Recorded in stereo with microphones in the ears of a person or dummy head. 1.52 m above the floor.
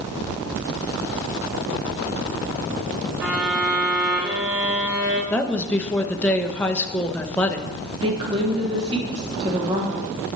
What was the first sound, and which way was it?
A violin, 10° right (ahead or behind).